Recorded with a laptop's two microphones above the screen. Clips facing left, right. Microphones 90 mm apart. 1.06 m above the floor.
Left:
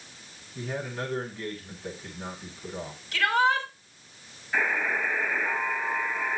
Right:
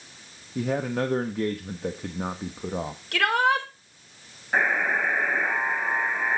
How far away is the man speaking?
About 1.1 m.